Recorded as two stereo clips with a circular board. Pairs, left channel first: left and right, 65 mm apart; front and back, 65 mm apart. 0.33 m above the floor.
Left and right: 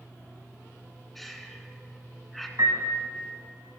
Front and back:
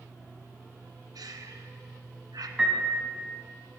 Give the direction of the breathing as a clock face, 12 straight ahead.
6 o'clock.